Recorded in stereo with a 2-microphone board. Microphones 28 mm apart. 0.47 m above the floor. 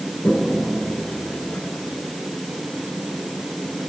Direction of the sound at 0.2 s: 65° left (ahead or behind).